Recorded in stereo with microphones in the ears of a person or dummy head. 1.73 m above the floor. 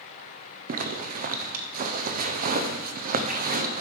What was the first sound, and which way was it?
A zipper, 45° right (ahead or behind).